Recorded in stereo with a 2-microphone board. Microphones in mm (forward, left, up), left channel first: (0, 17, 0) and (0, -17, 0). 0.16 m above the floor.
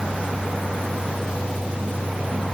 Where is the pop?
No pop in this recording.